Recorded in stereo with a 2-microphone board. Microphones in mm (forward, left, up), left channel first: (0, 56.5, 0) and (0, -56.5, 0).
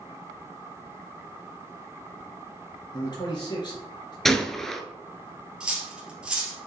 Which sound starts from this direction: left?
A man speaking, at 2.9 s.